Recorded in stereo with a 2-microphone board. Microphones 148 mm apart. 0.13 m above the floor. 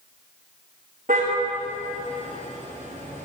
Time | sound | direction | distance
1.1 | a car horn | 65° right (ahead or behind) | 7 m